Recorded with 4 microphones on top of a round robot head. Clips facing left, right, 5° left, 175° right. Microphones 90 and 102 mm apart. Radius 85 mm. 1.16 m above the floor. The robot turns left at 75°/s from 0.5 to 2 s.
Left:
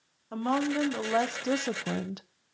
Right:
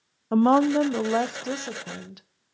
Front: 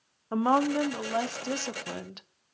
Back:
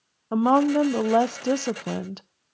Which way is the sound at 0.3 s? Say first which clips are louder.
Right 9 dB, back 5 dB; 110° right.